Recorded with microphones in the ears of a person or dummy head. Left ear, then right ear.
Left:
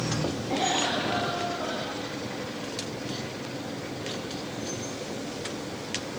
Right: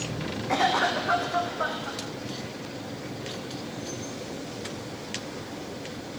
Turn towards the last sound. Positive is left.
turn(degrees=-55)  # may be behind; listen again after turning